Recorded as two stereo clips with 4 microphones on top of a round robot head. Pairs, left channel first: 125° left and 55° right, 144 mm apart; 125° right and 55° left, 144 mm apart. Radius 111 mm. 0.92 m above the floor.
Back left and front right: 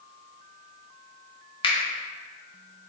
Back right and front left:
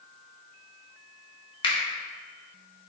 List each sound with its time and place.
1.6 s a finger snap: straight behind, 1.2 m